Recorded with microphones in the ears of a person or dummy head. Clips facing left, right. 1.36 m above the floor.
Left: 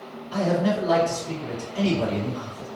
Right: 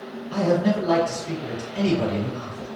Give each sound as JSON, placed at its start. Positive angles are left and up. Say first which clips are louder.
{"t": 0.3, "sound": "a man speaking", "louder": "right 2 dB", "side_deg": -25, "distance_m": 1.5}